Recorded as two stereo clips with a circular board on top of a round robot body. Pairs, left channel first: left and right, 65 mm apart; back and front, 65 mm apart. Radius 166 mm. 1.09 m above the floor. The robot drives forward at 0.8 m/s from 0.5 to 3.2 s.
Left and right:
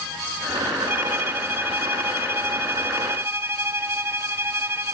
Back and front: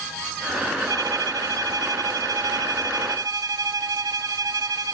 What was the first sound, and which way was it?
A violin, 30° right.